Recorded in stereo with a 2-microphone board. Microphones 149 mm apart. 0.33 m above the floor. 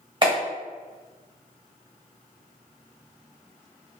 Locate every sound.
0.2 s a clap: 35° right (ahead or behind), 1.5 m